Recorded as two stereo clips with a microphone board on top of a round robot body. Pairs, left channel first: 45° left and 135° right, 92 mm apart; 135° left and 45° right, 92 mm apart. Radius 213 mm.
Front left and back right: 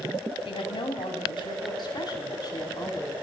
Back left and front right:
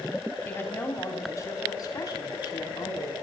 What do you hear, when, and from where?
0.5 s a woman speaking: 65° left, 3 m; by 3.1 s 100° left, 4.5 m